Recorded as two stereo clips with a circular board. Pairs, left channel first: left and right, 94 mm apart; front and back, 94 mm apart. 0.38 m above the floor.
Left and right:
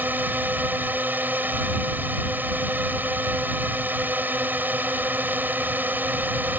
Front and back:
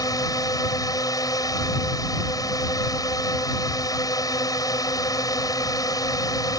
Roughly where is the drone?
Ahead right.